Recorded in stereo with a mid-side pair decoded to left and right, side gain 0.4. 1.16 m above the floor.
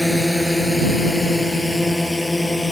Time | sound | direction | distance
0.0 | a drone | straight ahead | ?